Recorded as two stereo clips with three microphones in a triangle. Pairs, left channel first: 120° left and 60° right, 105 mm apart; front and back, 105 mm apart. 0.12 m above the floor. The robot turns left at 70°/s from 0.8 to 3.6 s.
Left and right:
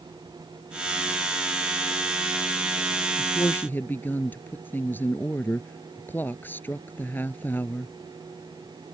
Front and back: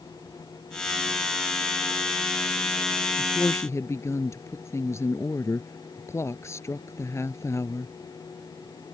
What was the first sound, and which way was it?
A woman speaking, 80° left.